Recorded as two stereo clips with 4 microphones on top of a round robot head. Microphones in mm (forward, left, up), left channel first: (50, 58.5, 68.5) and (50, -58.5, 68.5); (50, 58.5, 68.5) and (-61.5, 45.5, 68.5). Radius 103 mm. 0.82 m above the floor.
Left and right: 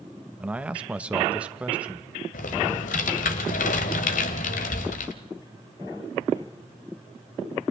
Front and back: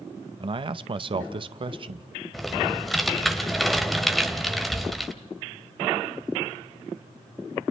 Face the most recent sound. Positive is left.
turn(degrees=95)